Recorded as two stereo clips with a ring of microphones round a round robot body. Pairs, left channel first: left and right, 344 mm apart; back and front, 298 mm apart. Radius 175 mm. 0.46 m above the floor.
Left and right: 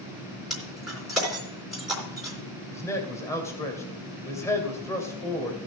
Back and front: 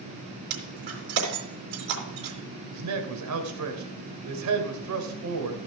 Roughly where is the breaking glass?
Ahead.